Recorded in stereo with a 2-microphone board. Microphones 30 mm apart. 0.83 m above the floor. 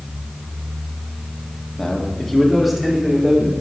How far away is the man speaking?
About 1.5 m.